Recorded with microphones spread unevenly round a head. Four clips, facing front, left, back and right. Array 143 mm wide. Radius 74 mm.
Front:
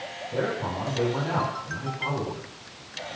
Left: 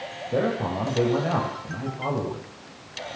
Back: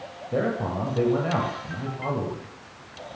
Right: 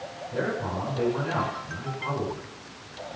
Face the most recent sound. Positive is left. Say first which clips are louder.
# left 4 dB, back 3 dB
turn(degrees=120)